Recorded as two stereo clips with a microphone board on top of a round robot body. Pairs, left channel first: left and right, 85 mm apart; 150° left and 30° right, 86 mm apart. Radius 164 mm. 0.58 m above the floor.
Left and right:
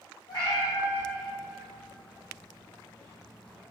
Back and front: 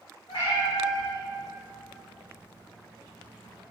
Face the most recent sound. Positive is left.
turn(degrees=5)